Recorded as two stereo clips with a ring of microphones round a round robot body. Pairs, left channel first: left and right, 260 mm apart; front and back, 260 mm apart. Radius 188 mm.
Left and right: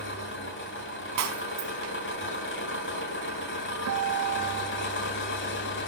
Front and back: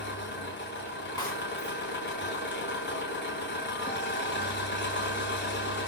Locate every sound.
0.0 s an engine running: 50° left, 7 m
1.2 s breaking glass: 80° right, 3.5 m
3.9 s a guitar: 70° right, 0.8 m